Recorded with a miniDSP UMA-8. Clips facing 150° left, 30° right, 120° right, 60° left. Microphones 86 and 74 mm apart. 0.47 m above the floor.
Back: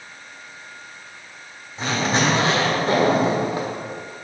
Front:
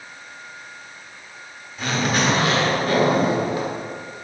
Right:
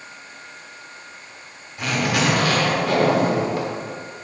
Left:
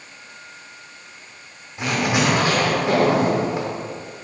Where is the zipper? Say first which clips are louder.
Back 1 dB, left 1 dB; 110° left, 1.5 m.